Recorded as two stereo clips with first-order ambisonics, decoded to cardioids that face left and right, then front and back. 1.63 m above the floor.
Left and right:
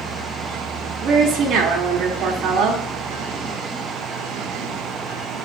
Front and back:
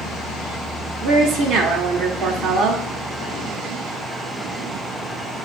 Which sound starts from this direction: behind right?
A woman speaking, at 1.0 s.